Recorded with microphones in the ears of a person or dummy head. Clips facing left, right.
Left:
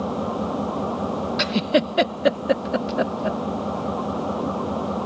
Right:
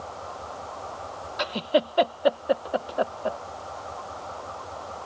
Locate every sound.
0.0 s an engine running: 75° left (ahead or behind)
1.4 s a giggle: 35° left (ahead or behind)